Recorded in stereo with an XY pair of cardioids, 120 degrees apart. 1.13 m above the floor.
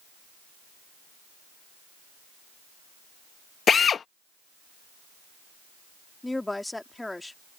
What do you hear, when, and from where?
3.7 s a drill: 40° left
6.2 s a woman speaking: 10° left